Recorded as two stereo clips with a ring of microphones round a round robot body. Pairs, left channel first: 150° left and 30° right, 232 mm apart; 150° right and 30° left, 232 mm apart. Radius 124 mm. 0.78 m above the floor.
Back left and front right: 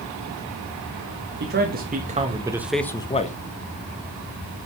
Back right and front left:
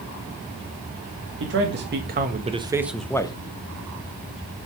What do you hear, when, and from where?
1.4 s a man speaking: 5° left, 1.9 m; by 3.4 s 155° left, 1.2 m